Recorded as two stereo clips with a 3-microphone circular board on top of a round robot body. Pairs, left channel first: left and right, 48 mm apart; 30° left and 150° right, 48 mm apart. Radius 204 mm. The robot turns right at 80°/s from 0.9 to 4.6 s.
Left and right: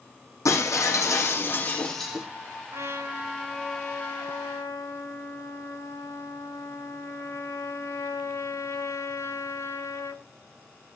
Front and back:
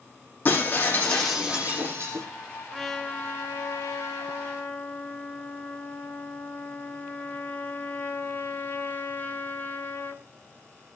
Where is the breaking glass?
85° left, 5.5 m; by 2.3 s 165° right, 5.5 m.